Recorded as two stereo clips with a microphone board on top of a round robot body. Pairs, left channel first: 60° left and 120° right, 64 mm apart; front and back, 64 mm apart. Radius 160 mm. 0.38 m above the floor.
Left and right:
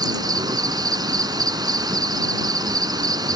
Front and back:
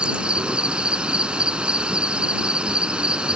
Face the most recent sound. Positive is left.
turn(degrees=-105)